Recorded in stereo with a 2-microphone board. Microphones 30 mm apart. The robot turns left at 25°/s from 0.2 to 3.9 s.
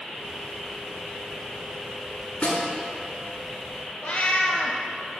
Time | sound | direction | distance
2.4 | a snare drum | 45° left (ahead or behind) | 2 m
4.0 | a cat meowing | 50° left (ahead or behind) | 1.2 m